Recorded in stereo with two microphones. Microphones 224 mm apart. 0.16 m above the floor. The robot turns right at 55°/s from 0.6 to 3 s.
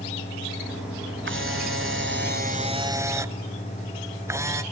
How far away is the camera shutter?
About 0.7 m.